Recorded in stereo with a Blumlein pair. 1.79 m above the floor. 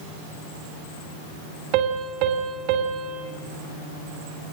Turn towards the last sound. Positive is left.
turn(degrees=-40)